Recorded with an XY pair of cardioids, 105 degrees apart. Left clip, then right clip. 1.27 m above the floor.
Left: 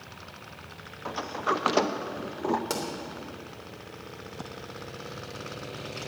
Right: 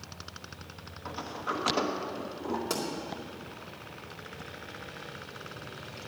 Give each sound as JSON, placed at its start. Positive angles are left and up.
{"t": 1.1, "sound": "a sliding door", "azimuth_deg": 60, "distance_m": 0.9}
{"t": 2.7, "sound": "a pop", "azimuth_deg": 30, "distance_m": 3.0}